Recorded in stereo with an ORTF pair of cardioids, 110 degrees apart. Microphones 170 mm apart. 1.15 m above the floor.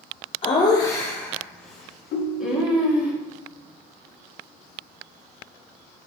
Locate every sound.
0.4 s laughter: 30° left, 1.0 m; by 3.1 s 5° right, 3 m
2.1 s a ringtone: 70° left, 1.2 m